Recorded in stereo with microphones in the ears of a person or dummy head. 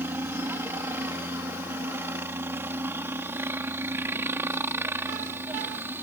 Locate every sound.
0.0 s a helicopter: 10° right (ahead or behind)